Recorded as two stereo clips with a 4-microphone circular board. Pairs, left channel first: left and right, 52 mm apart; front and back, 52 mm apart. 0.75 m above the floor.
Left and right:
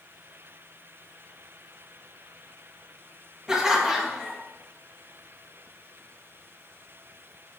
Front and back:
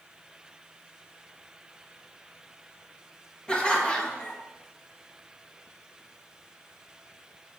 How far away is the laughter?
About 0.9 m.